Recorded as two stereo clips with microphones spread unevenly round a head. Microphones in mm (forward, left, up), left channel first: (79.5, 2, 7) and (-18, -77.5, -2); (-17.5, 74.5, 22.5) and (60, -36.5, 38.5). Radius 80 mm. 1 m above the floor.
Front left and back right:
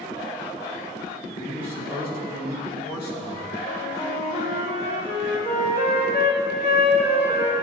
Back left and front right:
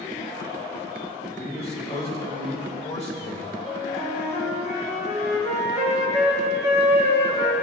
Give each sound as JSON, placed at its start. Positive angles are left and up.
{"t": 1.4, "sound": "a man speaking", "azimuth_deg": 85, "distance_m": 4.0}
{"t": 3.6, "sound": "a flute", "azimuth_deg": 85, "distance_m": 3.0}